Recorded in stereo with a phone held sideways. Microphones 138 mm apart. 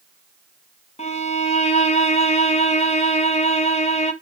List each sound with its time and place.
1.0 s a violin: 50° left (ahead or behind), 1.0 m